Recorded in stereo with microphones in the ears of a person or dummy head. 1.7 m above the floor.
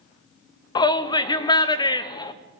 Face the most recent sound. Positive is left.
turn(degrees=25)  # may be behind; listen again after turning